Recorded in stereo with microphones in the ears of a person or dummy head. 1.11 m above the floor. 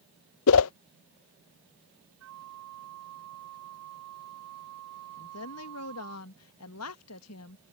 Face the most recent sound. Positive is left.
turn(degrees=75)  # may be behind; listen again after turning